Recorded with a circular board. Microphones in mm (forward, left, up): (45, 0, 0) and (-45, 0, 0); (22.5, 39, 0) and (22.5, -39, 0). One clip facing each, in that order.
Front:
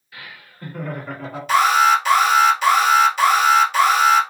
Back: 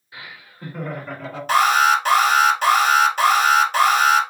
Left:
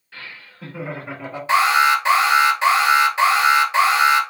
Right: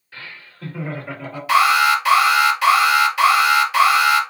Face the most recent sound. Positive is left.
turn(degrees=145)